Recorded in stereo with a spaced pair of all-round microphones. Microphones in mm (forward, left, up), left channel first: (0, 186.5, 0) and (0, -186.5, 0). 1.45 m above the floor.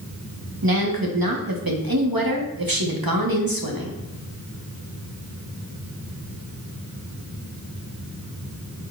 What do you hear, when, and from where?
0.6 s a woman speaking: 60° right (ahead or behind), 1.7 m